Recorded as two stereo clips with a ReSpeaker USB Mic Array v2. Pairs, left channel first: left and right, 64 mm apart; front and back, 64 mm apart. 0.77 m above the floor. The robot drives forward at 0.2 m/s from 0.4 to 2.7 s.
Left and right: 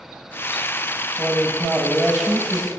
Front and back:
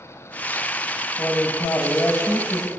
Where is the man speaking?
10° right, 0.9 m; by 2.7 s 15° right, 0.7 m.